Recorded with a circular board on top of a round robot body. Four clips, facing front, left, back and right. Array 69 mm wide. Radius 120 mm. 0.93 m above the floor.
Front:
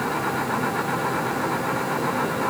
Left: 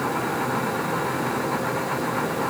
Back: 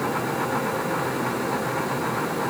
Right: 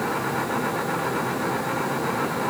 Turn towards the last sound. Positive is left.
No sound to turn to.